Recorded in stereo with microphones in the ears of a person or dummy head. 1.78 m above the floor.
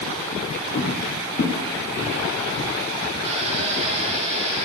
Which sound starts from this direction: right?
A drill, at 3.2 s.